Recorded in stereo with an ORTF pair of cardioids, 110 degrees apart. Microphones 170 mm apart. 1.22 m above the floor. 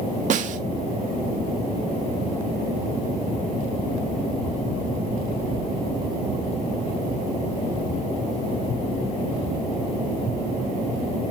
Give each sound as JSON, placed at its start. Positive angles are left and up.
{"t": 0.3, "sound": "a snare drum", "azimuth_deg": -45, "distance_m": 1.7}